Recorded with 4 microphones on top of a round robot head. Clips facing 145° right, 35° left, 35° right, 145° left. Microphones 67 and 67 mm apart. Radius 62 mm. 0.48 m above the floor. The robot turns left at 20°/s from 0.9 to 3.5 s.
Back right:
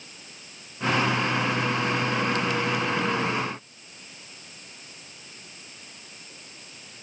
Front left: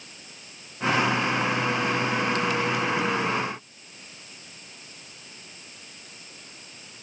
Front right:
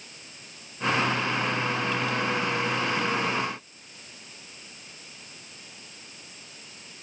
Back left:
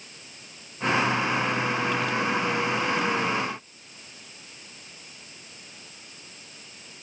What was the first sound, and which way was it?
Only background noise.